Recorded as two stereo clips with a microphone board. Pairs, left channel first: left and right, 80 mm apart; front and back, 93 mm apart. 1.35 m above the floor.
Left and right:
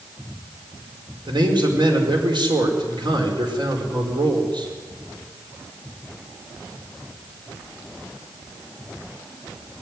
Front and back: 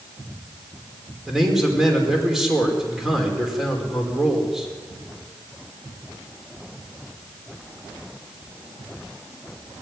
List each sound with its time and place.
1.3 s a man speaking: 95° right, 5 m